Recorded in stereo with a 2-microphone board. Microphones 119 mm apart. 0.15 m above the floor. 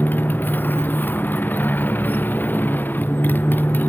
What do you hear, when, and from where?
0.0 s a motorcycle: 15° left (ahead or behind)